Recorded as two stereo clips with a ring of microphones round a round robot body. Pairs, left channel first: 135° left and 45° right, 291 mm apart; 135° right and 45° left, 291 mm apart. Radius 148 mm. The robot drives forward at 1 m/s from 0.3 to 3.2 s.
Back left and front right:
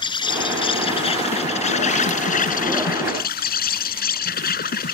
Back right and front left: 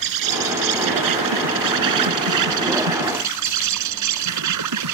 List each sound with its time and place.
0.0 s an insect: 60° left; by 5.0 s 75° left